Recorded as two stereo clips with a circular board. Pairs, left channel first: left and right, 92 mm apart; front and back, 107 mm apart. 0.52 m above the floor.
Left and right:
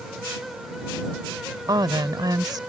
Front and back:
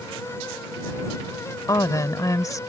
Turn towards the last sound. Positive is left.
turn(degrees=-55)